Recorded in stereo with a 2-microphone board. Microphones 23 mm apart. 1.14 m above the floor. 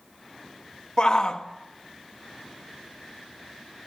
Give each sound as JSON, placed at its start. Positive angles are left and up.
{"t": 1.0, "sound": "a shout", "side_deg": 35, "distance_m": 1.6}